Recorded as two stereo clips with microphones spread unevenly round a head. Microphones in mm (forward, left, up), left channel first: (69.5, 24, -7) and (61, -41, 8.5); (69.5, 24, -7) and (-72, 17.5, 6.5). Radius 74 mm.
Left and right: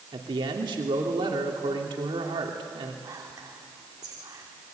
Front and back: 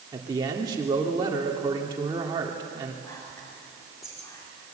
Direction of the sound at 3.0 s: 70° right.